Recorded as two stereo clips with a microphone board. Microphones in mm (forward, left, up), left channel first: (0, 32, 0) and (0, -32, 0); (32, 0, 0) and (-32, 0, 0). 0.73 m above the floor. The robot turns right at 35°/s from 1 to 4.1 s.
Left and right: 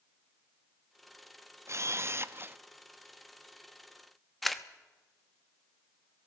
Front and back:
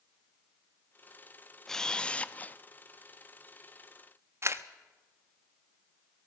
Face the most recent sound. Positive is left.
turn(degrees=180)